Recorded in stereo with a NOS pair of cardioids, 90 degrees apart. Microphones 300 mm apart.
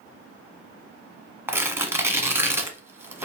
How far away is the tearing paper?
About 0.8 m.